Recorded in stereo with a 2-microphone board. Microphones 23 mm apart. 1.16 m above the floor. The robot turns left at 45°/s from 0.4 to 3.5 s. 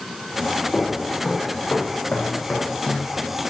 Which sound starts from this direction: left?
Footsteps, at 0.7 s.